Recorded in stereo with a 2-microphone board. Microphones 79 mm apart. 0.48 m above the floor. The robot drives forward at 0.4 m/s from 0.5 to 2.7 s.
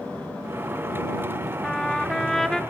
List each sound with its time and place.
1.6 s a trumpet: 10° left (ahead or behind), 0.8 m; by 2.6 s 5° left (ahead or behind), 1.0 m